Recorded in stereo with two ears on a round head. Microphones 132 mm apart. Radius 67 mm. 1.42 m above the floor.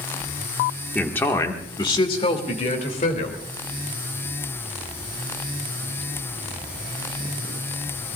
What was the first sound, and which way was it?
A man speaking, 10° left (ahead or behind).